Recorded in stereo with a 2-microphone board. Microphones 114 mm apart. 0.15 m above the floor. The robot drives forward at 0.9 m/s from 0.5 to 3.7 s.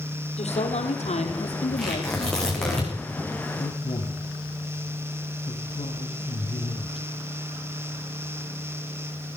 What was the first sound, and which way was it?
A woman speaking, 75° left (ahead or behind).